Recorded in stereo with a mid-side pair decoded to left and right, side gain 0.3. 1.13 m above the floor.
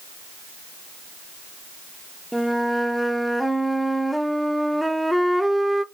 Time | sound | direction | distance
2.3 | a flute | straight ahead | 0.6 m